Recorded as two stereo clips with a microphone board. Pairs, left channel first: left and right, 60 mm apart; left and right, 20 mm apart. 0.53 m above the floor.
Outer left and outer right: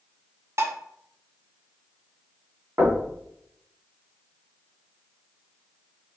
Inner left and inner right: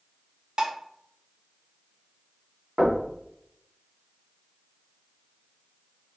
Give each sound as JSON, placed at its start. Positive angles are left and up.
{"t": 0.6, "sound": "dishes clattering", "side_deg": -50, "distance_m": 0.6}
{"t": 2.8, "sound": "knocking", "side_deg": -50, "distance_m": 1.1}